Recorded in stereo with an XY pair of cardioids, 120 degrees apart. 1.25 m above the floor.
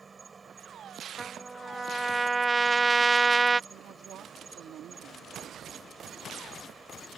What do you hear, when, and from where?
0.0 s an insect: 20° right
1.2 s a trumpet: 15° right
3.7 s a woman speaking: 60° right